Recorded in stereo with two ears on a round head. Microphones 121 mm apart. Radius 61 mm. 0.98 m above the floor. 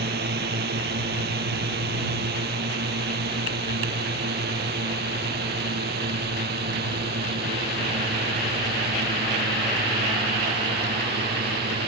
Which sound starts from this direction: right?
A drone, at 0.0 s.